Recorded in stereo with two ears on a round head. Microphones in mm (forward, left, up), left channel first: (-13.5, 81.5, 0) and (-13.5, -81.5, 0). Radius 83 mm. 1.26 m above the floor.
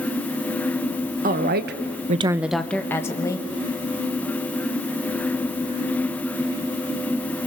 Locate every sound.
1.2 s a woman speaking: 50° right (ahead or behind), 1.4 m; by 3.5 s 20° left (ahead or behind), 2.5 m